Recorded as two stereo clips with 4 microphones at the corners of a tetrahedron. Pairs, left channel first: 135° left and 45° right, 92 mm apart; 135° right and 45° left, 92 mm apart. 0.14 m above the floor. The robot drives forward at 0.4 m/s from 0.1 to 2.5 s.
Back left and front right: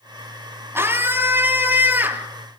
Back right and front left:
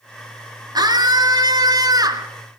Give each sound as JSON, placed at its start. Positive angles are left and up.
{"t": 0.8, "sound": "a scream", "azimuth_deg": 15, "distance_m": 3.0}